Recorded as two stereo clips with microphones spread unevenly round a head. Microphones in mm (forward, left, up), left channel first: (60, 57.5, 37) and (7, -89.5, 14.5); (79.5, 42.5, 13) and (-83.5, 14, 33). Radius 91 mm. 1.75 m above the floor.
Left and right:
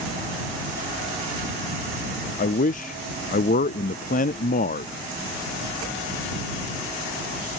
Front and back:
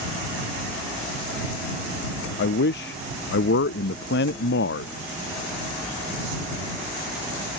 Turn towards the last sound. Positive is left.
turn(degrees=30)